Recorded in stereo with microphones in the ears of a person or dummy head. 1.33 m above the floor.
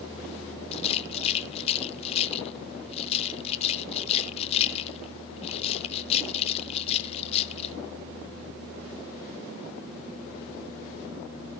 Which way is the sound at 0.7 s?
35° left (ahead or behind).